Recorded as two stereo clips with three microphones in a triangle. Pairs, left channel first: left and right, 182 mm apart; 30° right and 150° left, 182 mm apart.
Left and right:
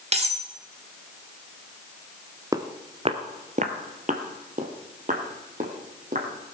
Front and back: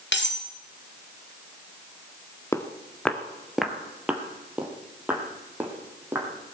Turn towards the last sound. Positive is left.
turn(degrees=-130)